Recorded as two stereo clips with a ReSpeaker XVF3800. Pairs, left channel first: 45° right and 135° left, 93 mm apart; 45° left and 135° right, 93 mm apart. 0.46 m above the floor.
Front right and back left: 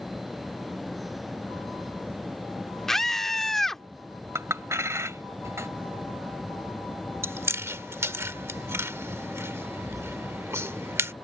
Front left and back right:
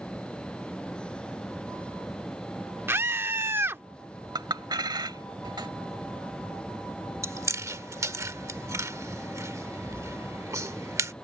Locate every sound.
2.9 s a scream: 125° right
4.3 s a clink: 170° right
7.2 s chewing: 175° right